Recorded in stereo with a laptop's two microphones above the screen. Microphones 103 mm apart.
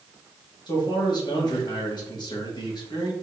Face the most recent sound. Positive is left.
turn(degrees=45)  # may be behind; listen again after turning